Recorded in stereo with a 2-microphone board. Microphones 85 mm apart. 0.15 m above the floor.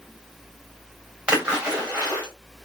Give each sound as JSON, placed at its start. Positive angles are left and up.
{"t": 1.3, "sound": "a splash", "side_deg": -10, "distance_m": 5.0}